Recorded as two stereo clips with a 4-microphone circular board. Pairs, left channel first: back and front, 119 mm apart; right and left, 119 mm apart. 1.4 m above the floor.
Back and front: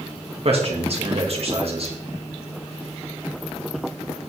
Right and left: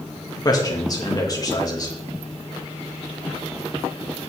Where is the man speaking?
30° right, 2.5 m.